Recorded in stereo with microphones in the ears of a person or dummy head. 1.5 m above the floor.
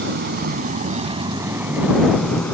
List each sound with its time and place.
0.0 s a vehicle: 70° right (ahead or behind); by 2.5 s 5° left (ahead or behind)